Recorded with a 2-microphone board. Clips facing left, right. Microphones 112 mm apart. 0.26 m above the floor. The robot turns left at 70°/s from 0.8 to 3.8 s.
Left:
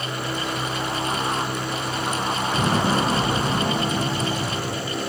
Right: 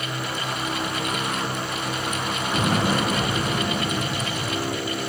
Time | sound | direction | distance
2.5 | an explosion | 165° right | 2.5 m